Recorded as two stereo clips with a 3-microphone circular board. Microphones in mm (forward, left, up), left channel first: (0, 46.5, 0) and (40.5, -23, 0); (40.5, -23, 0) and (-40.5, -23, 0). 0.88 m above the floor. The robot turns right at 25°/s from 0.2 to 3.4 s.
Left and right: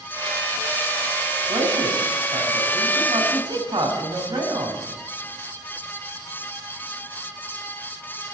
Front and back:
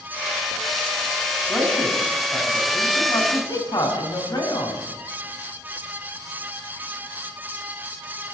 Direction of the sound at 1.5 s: 80° right.